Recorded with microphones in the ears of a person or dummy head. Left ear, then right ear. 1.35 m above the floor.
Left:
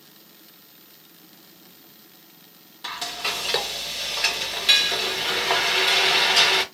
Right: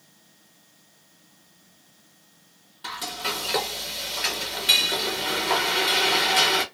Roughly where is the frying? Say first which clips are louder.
Left 2 dB; centre.